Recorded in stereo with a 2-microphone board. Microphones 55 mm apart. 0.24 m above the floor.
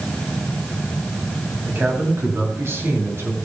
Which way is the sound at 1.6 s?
40° right (ahead or behind).